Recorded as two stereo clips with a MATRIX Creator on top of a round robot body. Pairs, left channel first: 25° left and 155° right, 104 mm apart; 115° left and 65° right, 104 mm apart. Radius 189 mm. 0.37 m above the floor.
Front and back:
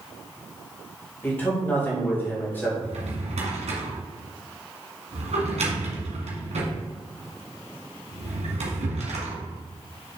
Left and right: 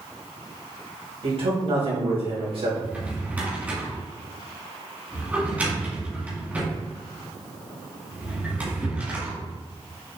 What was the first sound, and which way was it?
A man speaking, 45° right.